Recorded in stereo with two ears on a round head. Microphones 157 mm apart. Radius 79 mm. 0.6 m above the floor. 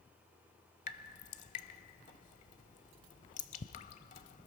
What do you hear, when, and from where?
0.9 s dripping: 45° left (ahead or behind), 0.9 m